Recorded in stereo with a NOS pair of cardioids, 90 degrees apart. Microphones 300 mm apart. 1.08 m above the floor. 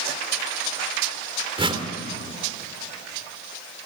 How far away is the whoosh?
About 3 m.